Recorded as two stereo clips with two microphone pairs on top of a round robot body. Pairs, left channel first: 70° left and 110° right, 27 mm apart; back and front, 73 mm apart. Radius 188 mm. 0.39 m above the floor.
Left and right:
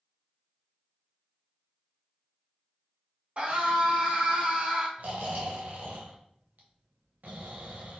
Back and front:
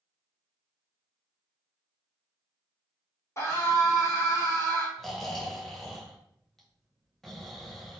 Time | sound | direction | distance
3.4 | a scream | 135° right | 1.9 m
5.0 | snoring | 95° right | 0.6 m